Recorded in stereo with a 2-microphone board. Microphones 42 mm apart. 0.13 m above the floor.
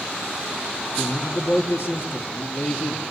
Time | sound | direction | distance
1.0 | a man speaking | 55° left (ahead or behind) | 3.5 m